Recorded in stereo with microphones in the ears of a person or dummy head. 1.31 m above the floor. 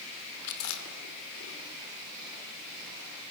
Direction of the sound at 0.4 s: 80° left.